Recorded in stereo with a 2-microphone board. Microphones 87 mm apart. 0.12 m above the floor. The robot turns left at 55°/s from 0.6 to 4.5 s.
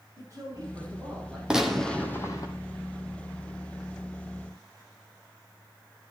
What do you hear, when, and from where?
0.2 s a man speaking: 140° right, 7 m; by 1.4 s 175° left, 7 m
1.5 s a gunshot: 170° right, 1.8 m; by 2.5 s 135° left, 1.8 m